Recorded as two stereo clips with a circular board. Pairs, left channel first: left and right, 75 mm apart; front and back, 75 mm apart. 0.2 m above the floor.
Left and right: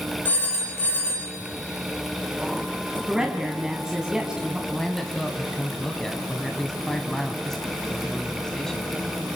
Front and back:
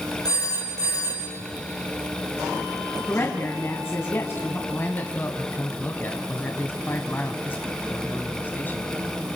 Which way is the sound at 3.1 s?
20° right.